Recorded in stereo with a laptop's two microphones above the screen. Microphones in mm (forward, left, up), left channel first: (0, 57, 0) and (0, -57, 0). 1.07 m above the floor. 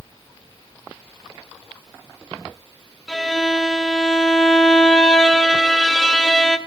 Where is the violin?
5° left (ahead or behind), 0.7 m.